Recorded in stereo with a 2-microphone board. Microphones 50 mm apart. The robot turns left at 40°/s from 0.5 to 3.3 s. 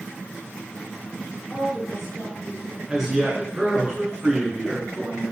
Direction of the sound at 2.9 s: 15° right (ahead or behind).